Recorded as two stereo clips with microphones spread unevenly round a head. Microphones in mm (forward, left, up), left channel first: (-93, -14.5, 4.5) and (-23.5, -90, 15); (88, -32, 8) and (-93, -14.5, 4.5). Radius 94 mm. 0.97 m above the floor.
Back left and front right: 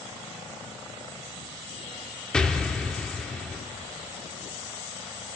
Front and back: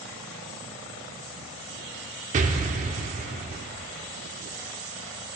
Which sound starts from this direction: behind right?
An explosion, at 2.3 s.